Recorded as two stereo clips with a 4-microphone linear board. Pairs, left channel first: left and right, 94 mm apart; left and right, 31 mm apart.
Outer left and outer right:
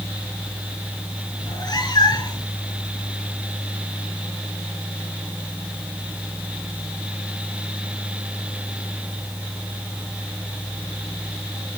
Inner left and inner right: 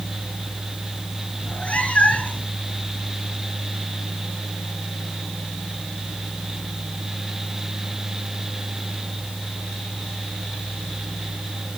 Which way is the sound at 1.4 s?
50° left (ahead or behind).